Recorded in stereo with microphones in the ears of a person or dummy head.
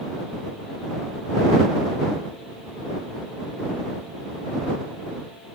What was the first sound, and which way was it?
Only background noise.